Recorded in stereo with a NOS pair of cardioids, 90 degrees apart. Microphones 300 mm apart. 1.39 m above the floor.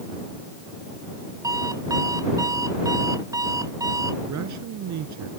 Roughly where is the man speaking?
Ahead right.